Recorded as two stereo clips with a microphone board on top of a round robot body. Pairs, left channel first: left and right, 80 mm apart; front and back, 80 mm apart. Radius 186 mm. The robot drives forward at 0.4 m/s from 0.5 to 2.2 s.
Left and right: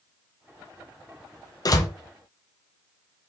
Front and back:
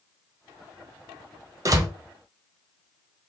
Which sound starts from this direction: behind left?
A door slam, at 1.6 s.